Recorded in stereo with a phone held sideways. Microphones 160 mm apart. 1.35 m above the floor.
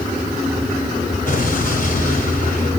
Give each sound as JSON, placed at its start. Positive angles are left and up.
{"t": 1.3, "sound": "an explosion", "side_deg": 55, "distance_m": 3.0}